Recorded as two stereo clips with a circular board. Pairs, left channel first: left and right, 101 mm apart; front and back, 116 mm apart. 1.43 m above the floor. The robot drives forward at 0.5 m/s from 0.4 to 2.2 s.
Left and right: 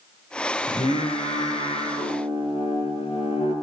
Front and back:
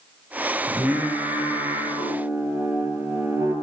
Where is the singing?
105° left, 5 m; by 3.5 s 115° left, 5 m.